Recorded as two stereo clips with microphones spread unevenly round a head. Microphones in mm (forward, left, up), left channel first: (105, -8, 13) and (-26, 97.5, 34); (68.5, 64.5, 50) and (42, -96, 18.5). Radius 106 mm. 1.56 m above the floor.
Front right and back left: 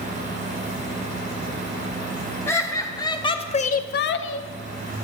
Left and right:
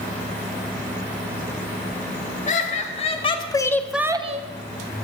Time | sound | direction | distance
2.5 | laughter | 40° left | 1.5 m